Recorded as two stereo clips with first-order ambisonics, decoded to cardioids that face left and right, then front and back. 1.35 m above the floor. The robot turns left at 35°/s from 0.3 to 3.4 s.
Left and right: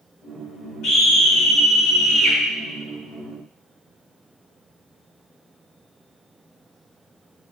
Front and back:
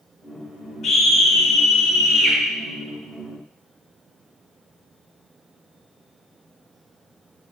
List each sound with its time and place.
0.8 s a scream: 50° left, 1.5 m; by 2.4 s 5° right, 1.5 m